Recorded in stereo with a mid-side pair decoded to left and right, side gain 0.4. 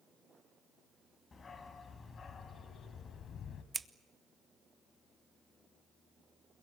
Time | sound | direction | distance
1.3 | a dog barking | 40° left | 4 m
3.7 | scissors | 20° right | 1.2 m